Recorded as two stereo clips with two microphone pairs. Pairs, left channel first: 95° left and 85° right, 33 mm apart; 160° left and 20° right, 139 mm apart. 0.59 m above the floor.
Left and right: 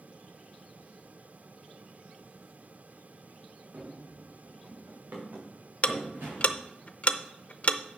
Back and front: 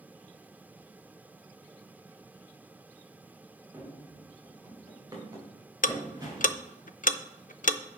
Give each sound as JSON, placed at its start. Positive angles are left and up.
{"t": 3.7, "sound": "running footsteps", "azimuth_deg": -85, "distance_m": 3.0}
{"t": 5.8, "sound": "ticking", "azimuth_deg": 145, "distance_m": 0.5}